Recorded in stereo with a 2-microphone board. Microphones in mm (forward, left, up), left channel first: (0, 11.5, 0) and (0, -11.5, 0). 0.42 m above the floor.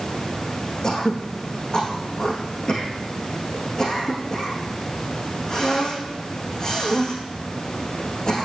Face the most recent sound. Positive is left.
turn(degrees=25)  # may be behind; listen again after turning